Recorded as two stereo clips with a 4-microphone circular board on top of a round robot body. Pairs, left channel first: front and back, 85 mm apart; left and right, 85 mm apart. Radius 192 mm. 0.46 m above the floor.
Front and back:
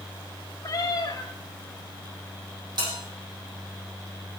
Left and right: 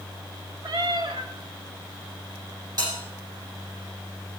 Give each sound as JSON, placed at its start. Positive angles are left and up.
{"t": 0.6, "sound": "a cat meowing", "azimuth_deg": -50, "distance_m": 1.0}
{"t": 2.8, "sound": "a bell", "azimuth_deg": -140, "distance_m": 6.5}